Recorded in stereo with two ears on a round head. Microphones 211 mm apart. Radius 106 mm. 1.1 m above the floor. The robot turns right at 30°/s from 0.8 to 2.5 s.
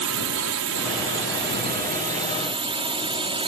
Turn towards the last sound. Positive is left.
turn(degrees=-25)